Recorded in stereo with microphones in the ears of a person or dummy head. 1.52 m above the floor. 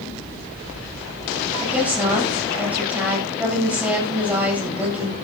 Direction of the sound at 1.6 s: 10° right (ahead or behind).